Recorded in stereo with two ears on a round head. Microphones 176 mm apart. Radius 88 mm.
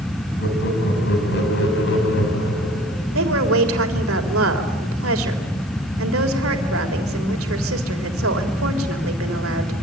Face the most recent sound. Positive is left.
turn(degrees=-80)